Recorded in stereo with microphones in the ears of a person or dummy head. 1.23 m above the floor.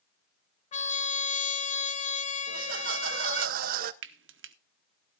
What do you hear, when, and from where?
0.7 s a trumpet: 35° left (ahead or behind), 0.6 m
2.5 s laughter: 45° right (ahead or behind), 0.7 m
4.0 s frying: 65° right (ahead or behind), 0.9 m